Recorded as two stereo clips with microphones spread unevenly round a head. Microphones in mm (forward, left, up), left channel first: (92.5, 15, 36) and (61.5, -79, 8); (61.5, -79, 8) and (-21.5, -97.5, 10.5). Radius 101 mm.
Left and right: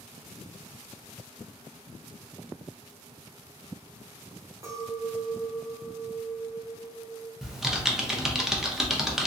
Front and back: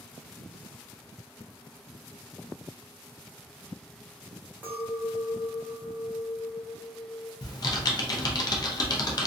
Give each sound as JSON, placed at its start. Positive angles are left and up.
{"t": 4.6, "sound": "a clink", "azimuth_deg": -170, "distance_m": 0.6}
{"t": 7.4, "sound": "typing on a keyboard", "azimuth_deg": -5, "distance_m": 0.5}